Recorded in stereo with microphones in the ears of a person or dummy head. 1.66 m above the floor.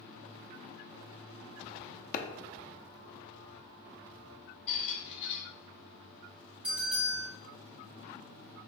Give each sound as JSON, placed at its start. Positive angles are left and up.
{"t": 2.1, "sound": "a clap", "side_deg": 50, "distance_m": 0.5}
{"t": 4.7, "sound": "a squeak", "side_deg": 35, "distance_m": 1.1}
{"t": 6.6, "sound": "a bell", "side_deg": -10, "distance_m": 1.8}